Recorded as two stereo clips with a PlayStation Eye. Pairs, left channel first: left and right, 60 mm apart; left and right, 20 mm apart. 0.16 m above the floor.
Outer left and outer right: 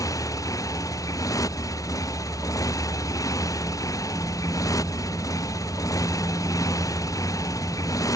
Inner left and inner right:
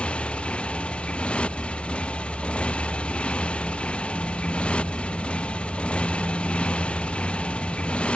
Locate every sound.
0.0 s a motorcycle: 75° left (ahead or behind)